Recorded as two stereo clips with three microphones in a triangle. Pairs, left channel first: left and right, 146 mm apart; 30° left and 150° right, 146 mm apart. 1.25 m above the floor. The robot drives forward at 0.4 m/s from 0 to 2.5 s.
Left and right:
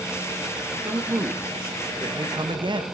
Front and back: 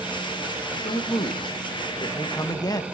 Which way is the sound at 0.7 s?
20° right.